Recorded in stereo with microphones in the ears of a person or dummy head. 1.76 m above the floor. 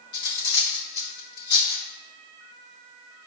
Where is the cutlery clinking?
65° left (ahead or behind), 1.9 m.